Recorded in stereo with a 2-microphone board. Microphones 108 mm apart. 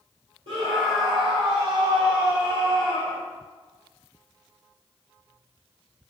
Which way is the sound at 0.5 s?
60° right (ahead or behind).